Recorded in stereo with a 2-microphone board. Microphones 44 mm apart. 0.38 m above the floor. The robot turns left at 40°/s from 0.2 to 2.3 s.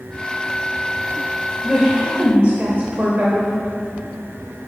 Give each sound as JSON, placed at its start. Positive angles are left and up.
{"t": 1.6, "sound": "a woman speaking", "side_deg": -25, "distance_m": 1.1}